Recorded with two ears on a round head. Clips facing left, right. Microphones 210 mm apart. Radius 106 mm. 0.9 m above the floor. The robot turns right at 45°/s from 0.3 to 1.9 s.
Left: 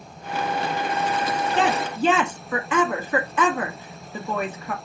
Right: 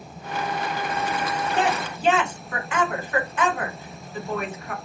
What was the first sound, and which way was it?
A woman speaking, 50° left (ahead or behind).